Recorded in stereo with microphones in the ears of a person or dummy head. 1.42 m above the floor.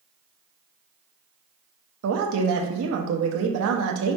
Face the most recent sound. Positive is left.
turn(degrees=-75)  # may be behind; listen again after turning